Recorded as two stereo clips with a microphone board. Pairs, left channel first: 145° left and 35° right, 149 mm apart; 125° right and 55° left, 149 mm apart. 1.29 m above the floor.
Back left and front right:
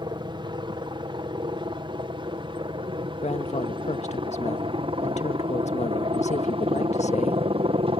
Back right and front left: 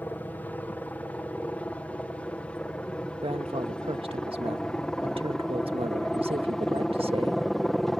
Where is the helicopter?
55° right; by 8.0 s 35° right.